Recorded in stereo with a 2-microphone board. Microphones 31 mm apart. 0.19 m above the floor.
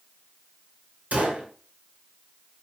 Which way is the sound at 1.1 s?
65° right (ahead or behind).